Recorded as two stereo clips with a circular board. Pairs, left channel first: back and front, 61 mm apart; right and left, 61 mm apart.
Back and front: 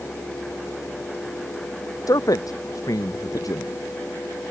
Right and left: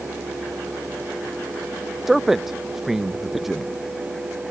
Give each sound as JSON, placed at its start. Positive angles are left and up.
{"t": 2.1, "sound": "a man speaking", "azimuth_deg": 175}